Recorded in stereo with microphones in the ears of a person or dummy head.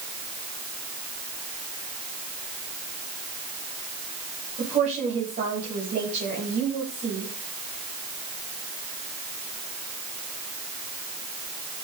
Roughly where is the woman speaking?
Right.